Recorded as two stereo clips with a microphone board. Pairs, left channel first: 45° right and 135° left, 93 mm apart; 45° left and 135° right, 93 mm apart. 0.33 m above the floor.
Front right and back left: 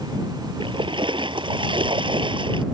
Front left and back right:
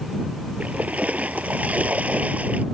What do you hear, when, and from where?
0.6 s a splash: 155° left